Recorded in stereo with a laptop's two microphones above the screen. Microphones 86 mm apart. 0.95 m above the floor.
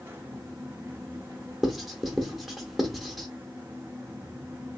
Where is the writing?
Centre (ahead or behind), 0.7 m.